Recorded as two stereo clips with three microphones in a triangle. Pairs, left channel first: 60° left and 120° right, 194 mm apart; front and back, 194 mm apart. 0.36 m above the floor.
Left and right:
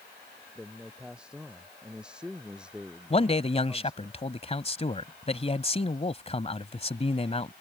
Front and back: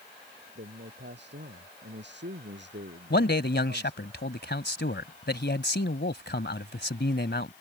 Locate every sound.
0.6 s a man speaking: 155° left
3.1 s a man speaking: 5° left